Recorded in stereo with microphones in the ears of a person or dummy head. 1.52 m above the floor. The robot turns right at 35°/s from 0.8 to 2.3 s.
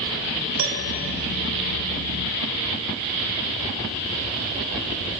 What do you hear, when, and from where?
0.6 s a piano: 85° right, 1.1 m